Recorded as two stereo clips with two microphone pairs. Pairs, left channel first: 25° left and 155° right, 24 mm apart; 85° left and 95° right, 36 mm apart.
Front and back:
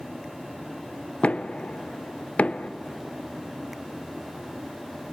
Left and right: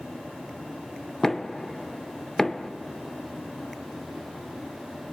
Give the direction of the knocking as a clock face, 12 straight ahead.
12 o'clock.